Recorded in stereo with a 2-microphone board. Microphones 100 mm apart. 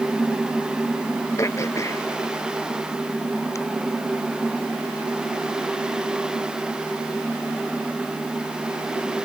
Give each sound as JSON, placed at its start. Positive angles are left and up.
{"t": 1.4, "sound": "throat clearing", "side_deg": 30}